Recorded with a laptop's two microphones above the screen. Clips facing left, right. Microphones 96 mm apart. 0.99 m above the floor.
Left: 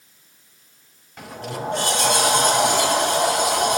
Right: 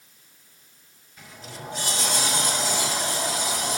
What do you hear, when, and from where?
1.2 s a sliding door: 65° left (ahead or behind), 0.8 m